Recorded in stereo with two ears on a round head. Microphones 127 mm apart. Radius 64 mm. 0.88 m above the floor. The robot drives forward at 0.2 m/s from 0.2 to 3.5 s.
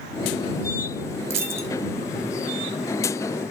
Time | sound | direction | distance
1.3 | a dropped coin | 20° right (ahead or behind) | 1.1 m